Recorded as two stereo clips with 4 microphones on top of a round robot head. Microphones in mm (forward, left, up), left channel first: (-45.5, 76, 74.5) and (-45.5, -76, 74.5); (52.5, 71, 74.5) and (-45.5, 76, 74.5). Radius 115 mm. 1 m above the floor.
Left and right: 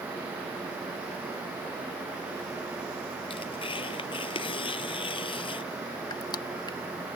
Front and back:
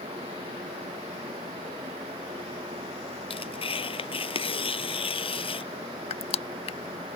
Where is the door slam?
No door slam in this recording.